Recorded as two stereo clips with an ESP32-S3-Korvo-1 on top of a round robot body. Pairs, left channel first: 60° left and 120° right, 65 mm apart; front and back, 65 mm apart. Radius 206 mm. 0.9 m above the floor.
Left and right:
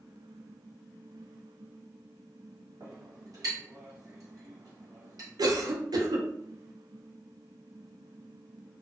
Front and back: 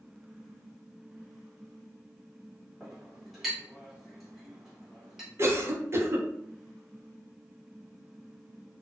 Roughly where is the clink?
Right.